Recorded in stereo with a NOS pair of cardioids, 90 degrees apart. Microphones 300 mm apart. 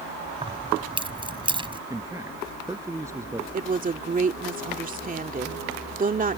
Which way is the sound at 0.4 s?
15° right.